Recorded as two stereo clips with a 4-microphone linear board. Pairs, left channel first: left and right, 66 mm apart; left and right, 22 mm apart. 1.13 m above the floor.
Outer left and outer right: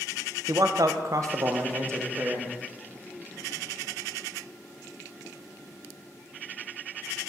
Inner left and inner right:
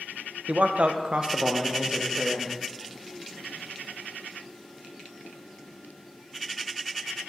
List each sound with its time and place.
0.5 s a man speaking: 55° right (ahead or behind), 0.5 m; by 2.5 s 40° right (ahead or behind), 1.3 m